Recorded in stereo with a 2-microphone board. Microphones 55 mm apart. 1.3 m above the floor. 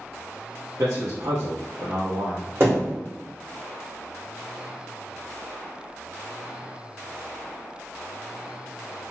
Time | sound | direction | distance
0.8 | a man speaking | 80° right | 0.7 m
2.6 | a thud | 45° right (ahead or behind) | 1.8 m